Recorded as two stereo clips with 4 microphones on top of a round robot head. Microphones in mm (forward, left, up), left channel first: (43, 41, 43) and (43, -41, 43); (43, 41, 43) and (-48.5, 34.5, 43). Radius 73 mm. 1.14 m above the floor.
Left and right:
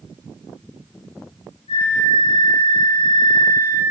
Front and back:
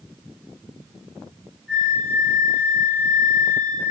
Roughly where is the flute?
Left.